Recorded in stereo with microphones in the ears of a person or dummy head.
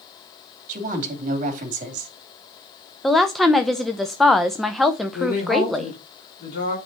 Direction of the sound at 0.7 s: 40° right (ahead or behind).